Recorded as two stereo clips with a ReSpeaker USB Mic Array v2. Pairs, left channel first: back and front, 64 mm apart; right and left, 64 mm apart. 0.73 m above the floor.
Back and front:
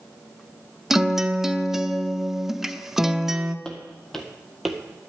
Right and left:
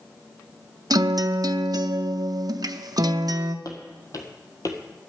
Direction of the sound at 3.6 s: 105° right.